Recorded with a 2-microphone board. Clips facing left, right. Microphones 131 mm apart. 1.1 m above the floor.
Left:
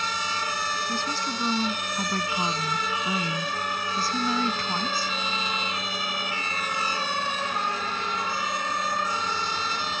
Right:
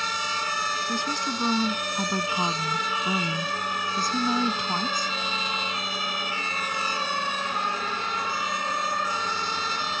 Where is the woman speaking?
15° right (ahead or behind).